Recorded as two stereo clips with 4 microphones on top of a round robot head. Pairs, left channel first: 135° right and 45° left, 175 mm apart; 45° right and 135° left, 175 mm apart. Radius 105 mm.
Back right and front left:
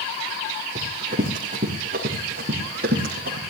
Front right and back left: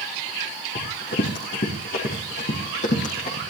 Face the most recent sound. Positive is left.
turn(degrees=5)